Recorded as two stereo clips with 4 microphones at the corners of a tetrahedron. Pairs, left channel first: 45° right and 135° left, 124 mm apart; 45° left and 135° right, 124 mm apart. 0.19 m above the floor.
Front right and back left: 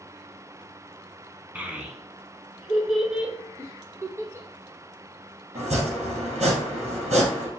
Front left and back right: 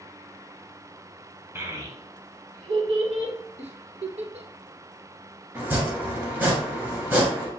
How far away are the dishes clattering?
I don't hear dishes clattering.